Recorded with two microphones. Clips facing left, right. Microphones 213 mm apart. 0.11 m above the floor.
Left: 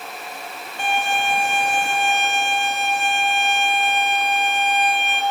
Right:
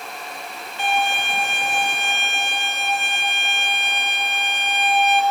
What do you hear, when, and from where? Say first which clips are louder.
0.8 s a violin: even; 45° left (ahead or behind), 2 m